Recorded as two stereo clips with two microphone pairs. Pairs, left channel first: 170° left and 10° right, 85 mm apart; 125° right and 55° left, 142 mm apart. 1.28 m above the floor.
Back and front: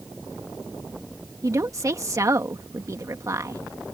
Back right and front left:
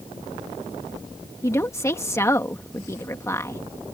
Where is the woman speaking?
55° right.